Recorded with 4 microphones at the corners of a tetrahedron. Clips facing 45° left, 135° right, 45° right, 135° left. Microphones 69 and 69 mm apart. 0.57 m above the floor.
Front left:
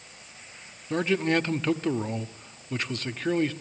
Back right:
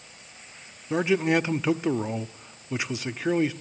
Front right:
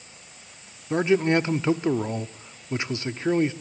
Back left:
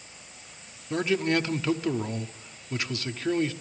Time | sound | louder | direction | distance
0.9 | a man speaking | back right 2 dB, front right 5 dB | 70° right | 0.6 m